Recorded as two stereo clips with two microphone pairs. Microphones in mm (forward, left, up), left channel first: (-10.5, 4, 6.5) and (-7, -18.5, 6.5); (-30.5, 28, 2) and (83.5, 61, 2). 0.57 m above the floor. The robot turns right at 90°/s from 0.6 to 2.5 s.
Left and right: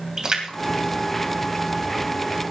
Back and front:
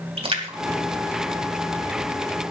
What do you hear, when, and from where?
0.2 s a splash: 20° right, 3 m; by 2.2 s 125° left, 3 m